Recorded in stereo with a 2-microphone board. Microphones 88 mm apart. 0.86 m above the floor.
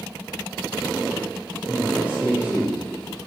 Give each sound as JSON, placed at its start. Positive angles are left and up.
{"t": 1.7, "sound": "a man speaking", "side_deg": -10, "distance_m": 2.0}